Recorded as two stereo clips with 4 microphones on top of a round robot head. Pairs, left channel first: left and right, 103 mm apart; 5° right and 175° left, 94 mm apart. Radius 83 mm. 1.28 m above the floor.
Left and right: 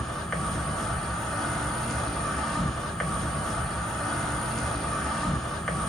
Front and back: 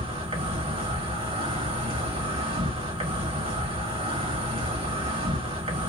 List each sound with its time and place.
0.0 s an insect: 175° left, 1.3 m